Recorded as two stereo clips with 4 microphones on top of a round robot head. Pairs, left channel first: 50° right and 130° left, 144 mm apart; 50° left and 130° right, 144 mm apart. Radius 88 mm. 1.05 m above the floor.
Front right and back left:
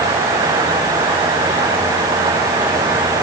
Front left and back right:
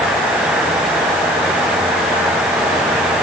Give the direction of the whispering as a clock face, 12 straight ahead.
No whispering in this recording.